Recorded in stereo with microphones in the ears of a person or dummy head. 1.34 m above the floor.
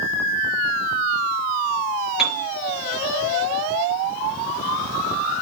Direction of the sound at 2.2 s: Centre (ahead or behind).